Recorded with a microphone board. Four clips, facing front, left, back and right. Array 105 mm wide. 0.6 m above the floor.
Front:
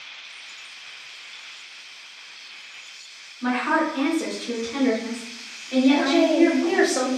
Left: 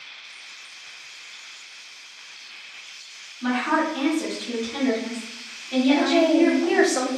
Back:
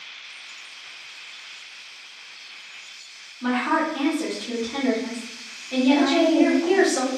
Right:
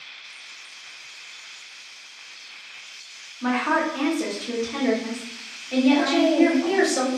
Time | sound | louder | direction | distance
3.4 | a woman speaking | even, even | 85° right | 1.1 m
5.9 | a woman speaking | left 2 dB, back 3 dB | 65° left | 0.9 m